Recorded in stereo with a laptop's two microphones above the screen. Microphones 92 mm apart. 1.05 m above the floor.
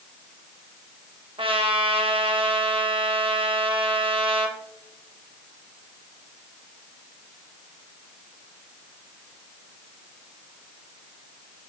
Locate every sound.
1.4 s a trumpet: 65° right (ahead or behind), 1.0 m